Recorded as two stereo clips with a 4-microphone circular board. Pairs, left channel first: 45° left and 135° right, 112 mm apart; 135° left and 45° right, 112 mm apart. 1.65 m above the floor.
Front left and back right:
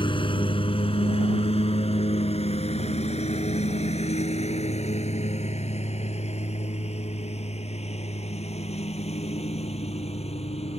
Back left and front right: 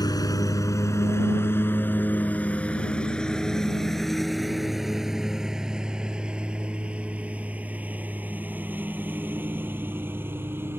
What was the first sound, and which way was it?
A lawn mower, 85° left.